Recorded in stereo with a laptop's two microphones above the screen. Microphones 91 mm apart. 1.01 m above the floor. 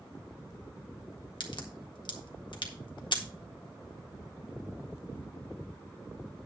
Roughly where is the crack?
Left.